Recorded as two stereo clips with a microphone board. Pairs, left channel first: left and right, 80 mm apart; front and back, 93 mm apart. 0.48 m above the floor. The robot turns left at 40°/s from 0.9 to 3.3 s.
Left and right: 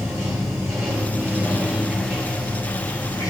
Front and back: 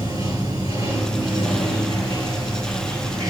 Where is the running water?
140° right, 6 m; by 3.3 s 125° left, 6 m.